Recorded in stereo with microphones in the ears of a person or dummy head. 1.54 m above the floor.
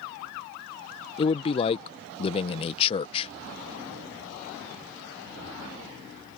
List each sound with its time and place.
1.2 s a man speaking: 30° left (ahead or behind)